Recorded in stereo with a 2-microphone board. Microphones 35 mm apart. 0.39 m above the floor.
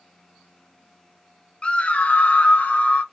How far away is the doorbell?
I don't hear a doorbell.